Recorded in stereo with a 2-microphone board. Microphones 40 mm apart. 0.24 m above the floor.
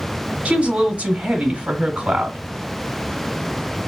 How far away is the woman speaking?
About 1.0 m.